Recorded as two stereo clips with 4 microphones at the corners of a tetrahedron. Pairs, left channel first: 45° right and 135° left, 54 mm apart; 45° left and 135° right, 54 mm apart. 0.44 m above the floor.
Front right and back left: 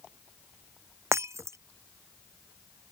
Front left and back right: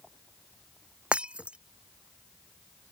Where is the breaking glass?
155° left.